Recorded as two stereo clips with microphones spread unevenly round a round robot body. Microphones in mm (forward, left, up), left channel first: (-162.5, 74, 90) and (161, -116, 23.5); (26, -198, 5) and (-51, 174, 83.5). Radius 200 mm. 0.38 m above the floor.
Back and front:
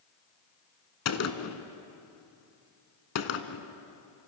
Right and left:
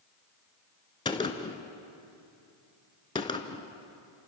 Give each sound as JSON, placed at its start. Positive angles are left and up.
{"t": 1.1, "sound": "a gunshot", "azimuth_deg": -160, "distance_m": 1.4}